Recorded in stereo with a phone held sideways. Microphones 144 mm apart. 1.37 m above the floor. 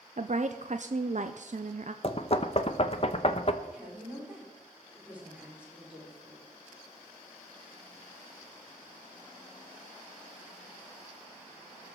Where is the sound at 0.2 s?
55° right (ahead or behind), 0.6 m.